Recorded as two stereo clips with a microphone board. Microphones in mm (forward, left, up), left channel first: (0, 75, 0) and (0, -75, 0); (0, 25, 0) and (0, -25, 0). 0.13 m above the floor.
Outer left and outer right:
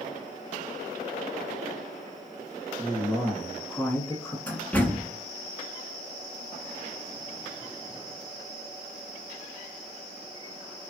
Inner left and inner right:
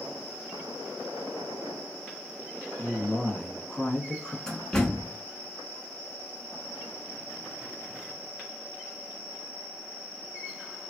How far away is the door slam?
About 0.9 m.